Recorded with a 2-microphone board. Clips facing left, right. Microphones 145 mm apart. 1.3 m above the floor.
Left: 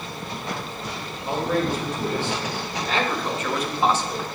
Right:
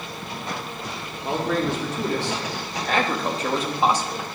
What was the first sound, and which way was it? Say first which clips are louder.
A man speaking: even; 90° right.